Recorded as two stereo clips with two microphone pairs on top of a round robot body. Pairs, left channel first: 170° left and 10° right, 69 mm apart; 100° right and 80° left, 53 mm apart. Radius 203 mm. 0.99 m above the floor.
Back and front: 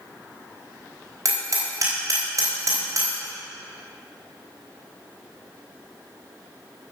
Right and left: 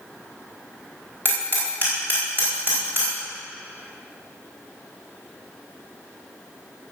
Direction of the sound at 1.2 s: 30° left.